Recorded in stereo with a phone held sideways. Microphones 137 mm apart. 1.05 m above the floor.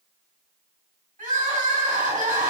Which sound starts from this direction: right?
Crying, at 1.2 s.